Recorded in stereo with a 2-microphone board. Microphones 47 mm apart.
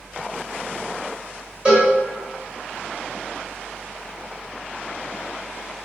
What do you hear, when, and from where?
1.6 s a cowbell: 25° right (ahead or behind), 1.4 m